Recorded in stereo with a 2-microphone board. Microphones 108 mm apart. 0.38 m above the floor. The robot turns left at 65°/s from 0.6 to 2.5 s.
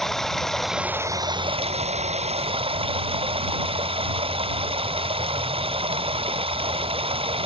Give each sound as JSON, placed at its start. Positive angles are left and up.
{"t": 0.0, "sound": "running water", "azimuth_deg": 0}